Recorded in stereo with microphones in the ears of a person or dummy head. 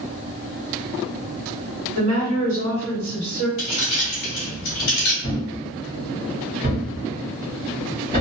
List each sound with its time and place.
1.9 s a woman speaking: 80° right, 1.6 m
3.6 s keys jangling: 45° left (ahead or behind), 1.2 m
5.2 s a thud: 20° right (ahead or behind), 1.3 m